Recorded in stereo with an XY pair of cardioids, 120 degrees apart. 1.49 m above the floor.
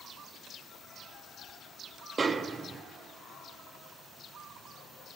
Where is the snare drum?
30° right, 0.7 m.